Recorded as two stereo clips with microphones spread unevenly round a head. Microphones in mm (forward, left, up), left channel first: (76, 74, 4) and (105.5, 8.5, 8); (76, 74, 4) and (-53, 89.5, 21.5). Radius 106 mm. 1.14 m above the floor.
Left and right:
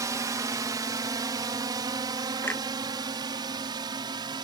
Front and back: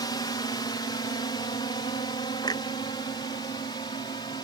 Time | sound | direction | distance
0.0 | a drone | 60° right | ?
2.4 | a clunk | 55° left | ?